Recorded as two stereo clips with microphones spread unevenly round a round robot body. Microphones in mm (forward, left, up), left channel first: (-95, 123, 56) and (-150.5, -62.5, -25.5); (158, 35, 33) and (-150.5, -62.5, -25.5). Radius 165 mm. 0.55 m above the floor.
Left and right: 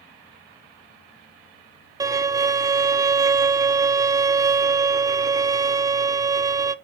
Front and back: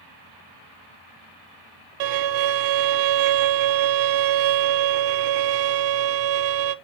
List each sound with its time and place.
2.0 s a violin: 175° left, 0.6 m